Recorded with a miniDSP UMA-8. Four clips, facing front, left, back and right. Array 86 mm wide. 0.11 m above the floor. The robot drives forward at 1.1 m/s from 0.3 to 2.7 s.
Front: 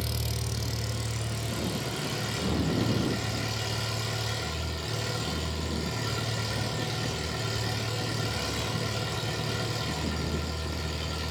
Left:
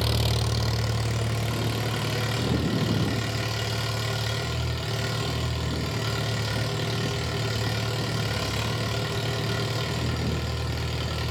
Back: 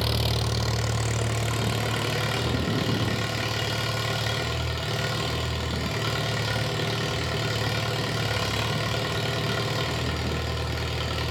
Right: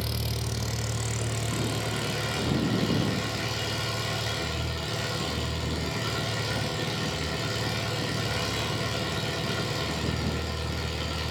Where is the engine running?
145° left, 0.9 m; by 11.3 s 170° left, 3.5 m.